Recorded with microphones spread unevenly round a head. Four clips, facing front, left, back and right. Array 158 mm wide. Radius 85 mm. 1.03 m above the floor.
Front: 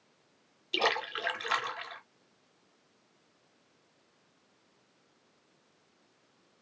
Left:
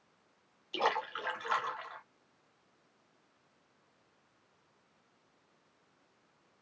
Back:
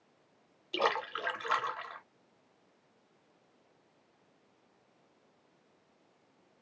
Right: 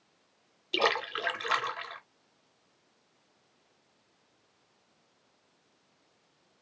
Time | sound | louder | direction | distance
0.7 | a splash | right 3 dB, even | 85° right | 1.2 m